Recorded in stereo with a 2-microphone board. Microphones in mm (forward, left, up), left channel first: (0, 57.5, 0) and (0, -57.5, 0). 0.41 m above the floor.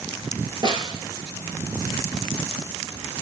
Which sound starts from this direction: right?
A snare drum, at 0.6 s.